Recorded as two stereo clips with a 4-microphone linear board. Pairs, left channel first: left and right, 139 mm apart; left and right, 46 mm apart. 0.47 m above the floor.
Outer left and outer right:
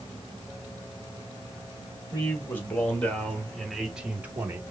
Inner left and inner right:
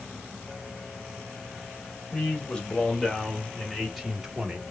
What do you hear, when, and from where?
2.1 s a man speaking: 15° left (ahead or behind), 2.5 m; by 4.6 s 20° right (ahead or behind), 1.3 m